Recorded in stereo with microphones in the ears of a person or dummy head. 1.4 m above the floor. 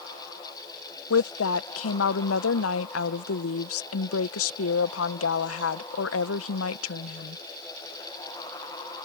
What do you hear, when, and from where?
1.1 s a woman speaking: 85° left